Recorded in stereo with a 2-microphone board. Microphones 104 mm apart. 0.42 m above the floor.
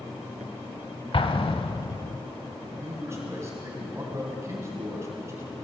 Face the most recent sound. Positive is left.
turn(degrees=-25)  # may be behind; listen again after turning